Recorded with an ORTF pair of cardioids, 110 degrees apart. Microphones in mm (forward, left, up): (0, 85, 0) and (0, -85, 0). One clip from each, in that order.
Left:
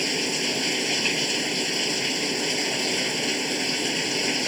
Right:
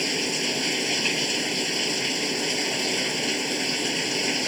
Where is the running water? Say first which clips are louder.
Even; 5° left.